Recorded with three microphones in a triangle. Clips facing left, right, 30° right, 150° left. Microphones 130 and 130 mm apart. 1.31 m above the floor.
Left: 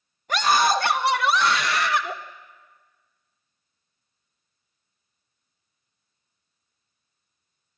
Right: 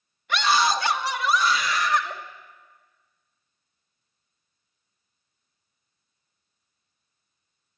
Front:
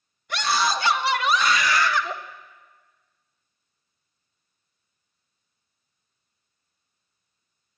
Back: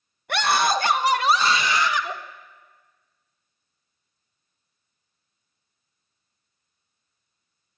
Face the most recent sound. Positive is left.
turn(degrees=75)